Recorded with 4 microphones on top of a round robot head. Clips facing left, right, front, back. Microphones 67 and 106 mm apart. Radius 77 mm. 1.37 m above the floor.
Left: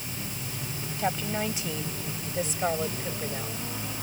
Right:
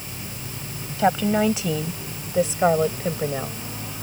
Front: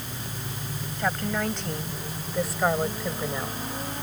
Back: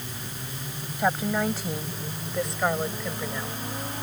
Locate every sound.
1.0 s a woman speaking: 100° right; by 3.6 s 80° right